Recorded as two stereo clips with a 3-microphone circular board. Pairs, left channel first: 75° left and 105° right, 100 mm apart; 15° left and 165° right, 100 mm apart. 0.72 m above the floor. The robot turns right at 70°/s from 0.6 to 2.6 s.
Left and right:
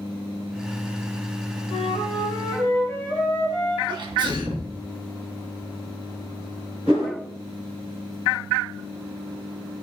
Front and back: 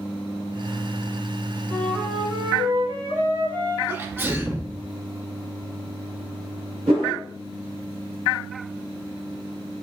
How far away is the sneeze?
About 0.8 m.